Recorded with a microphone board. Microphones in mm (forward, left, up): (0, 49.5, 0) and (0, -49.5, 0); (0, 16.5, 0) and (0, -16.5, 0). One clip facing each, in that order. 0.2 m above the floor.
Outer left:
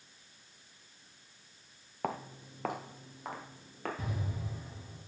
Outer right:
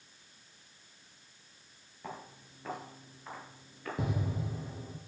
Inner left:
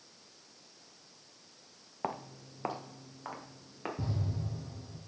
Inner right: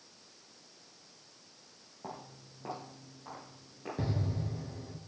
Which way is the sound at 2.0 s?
75° left (ahead or behind).